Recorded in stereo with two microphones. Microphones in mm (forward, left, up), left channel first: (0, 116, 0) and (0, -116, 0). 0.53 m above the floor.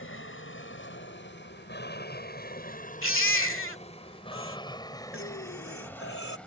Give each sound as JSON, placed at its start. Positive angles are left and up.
{"t": 0.0, "sound": "an aircraft", "side_deg": 60}
{"t": 3.0, "sound": "a baby crying", "side_deg": 65}
{"t": 5.1, "sound": "breathing", "side_deg": 60}